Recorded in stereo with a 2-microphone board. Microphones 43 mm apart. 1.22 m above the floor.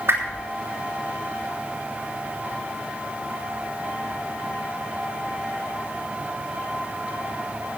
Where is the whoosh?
80° right, 3 m.